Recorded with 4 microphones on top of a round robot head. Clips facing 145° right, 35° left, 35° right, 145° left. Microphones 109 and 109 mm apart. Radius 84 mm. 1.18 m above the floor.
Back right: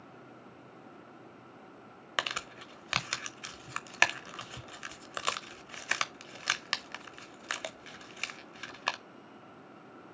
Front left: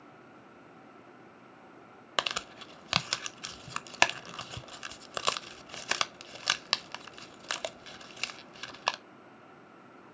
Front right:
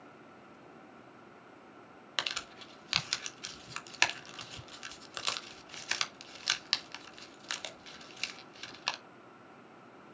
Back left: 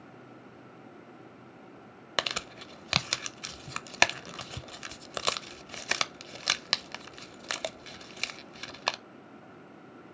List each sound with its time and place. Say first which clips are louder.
2.2 s crumpling: front left 2 dB, back left 7 dB; 100° left, 0.7 m